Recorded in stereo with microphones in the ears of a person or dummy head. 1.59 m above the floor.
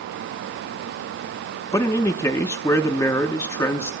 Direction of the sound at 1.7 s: 15° left (ahead or behind).